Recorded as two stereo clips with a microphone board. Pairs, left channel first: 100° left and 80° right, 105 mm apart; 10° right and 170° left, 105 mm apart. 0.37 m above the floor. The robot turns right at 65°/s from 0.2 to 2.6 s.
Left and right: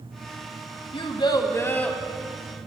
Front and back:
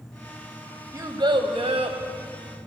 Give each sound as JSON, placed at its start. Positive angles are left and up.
{"t": 0.9, "sound": "a child speaking", "azimuth_deg": 115, "distance_m": 1.3}